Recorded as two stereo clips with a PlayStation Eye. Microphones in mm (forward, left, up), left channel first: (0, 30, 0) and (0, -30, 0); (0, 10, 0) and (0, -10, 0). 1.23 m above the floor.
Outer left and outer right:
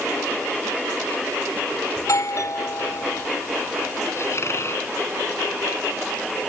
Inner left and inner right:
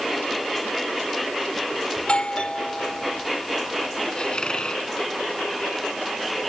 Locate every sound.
2.0 s a doorbell: 60° left (ahead or behind)
4.2 s a squeak: 50° left (ahead or behind)